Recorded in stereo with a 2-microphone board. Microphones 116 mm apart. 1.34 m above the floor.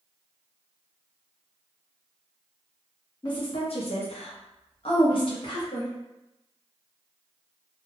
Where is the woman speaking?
40° left (ahead or behind), 0.6 m.